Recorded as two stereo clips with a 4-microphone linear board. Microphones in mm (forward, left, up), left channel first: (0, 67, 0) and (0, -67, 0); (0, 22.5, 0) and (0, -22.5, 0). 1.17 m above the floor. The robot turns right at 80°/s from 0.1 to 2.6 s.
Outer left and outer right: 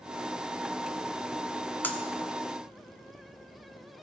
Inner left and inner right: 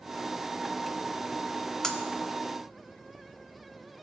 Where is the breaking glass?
15° left (ahead or behind), 1.1 m; by 2.0 s 5° left (ahead or behind), 1.1 m.